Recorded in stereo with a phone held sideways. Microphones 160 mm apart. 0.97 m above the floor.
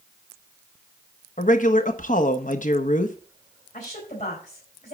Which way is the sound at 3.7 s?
50° left (ahead or behind).